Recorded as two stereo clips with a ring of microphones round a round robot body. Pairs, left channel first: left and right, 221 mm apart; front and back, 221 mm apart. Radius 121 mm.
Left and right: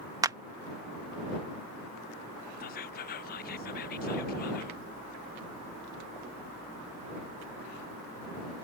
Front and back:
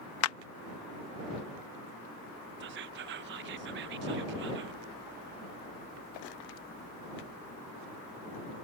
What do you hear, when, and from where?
0.2 s a clap: 15° right
2.6 s whispering: 140° left